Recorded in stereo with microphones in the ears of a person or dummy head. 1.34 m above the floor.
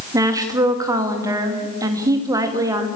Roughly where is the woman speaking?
Centre.